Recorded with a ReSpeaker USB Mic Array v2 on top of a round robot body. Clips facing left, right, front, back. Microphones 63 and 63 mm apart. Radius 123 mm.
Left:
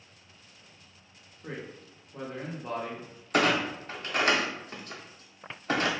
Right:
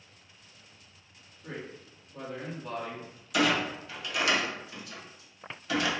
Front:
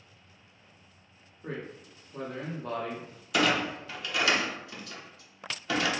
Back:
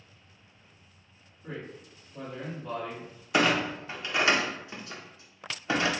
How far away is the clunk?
About 0.8 m.